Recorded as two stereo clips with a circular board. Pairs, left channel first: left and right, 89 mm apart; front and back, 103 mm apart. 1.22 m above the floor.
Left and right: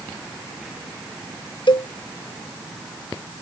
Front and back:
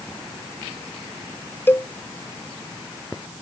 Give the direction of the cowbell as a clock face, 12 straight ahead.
10 o'clock.